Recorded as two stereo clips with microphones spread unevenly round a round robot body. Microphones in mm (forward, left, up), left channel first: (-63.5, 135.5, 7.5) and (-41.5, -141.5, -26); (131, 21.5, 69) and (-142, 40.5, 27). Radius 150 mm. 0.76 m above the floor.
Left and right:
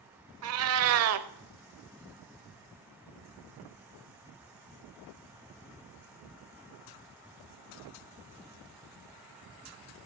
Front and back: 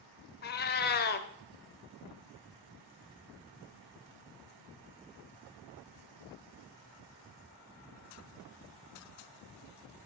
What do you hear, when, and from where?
0.4 s a cat meowing: 50° right, 0.7 m